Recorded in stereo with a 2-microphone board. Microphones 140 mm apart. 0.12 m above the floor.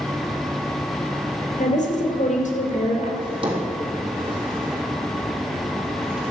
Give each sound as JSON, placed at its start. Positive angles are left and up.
{"t": 1.6, "sound": "a woman speaking", "side_deg": 65, "distance_m": 3.0}
{"t": 3.2, "sound": "a drawer", "side_deg": -40, "distance_m": 3.0}